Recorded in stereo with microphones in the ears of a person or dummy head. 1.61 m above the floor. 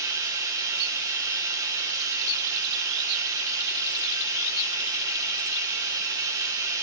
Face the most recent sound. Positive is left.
turn(degrees=-20)  # may be behind; listen again after turning